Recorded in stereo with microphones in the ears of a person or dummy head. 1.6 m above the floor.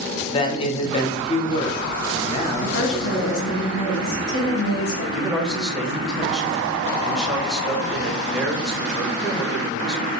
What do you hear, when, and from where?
0.3 s a man speaking: 25° left (ahead or behind), 0.8 m
2.6 s a woman speaking: 80° left, 2.5 m
5.1 s a man speaking: 5° right (ahead or behind), 0.9 m